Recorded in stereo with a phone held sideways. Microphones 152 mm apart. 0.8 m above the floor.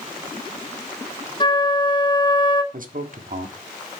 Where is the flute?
30° left (ahead or behind), 2 m.